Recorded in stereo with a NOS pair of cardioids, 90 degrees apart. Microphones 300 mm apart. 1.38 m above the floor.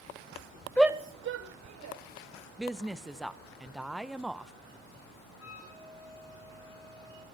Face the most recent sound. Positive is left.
turn(degrees=50)